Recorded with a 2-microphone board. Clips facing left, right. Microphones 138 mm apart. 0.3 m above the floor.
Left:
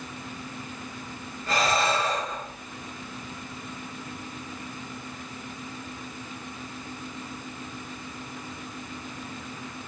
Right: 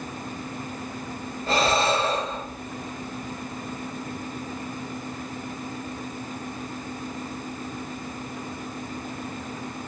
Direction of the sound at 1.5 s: 30° right (ahead or behind).